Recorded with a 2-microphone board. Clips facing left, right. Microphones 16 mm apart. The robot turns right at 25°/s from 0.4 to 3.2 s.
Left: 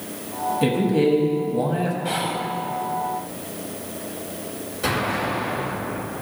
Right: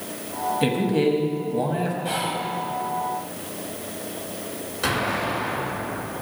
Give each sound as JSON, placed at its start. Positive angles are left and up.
{"t": 0.6, "sound": "a man speaking", "side_deg": -15, "distance_m": 1.1}
{"t": 2.0, "sound": "whispering", "side_deg": 5, "distance_m": 1.0}
{"t": 4.8, "sound": "an explosion", "side_deg": -30, "distance_m": 3.0}